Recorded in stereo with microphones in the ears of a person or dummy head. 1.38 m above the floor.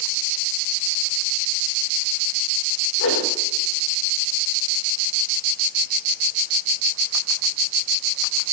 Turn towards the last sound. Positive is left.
turn(degrees=70)  # may be behind; listen again after turning